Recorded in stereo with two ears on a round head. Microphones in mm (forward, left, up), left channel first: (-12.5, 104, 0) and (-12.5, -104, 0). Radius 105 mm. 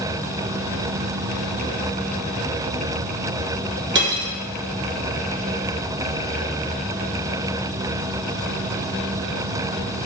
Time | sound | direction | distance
4.0 | cutlery clinking | 50° right (ahead or behind) | 1.1 m